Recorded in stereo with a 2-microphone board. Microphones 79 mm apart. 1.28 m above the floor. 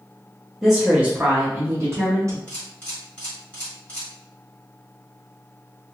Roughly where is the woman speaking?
Centre.